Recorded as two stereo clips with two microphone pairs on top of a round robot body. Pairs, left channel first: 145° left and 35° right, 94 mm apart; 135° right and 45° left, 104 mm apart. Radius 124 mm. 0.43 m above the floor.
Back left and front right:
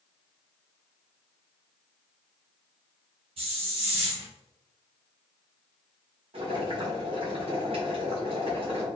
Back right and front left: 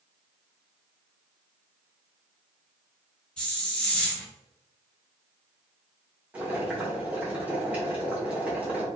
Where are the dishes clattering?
No dishes clattering in this recording.